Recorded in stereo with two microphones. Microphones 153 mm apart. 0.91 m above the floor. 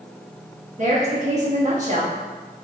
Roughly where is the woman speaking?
Right.